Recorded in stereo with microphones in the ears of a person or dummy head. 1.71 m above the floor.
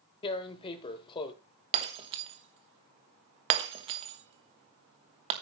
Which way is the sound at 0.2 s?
35° left (ahead or behind).